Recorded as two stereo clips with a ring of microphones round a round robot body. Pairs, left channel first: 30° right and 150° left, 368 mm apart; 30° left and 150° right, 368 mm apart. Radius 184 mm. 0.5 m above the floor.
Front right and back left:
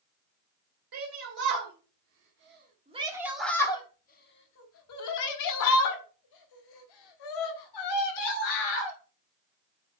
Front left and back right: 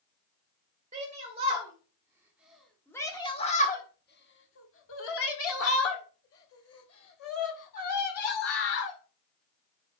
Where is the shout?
140° left, 1.9 m; by 9.0 s 20° right, 3.5 m.